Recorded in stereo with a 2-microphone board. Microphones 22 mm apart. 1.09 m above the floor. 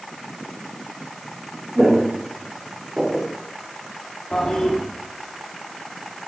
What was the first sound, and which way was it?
Footsteps, 50° right (ahead or behind).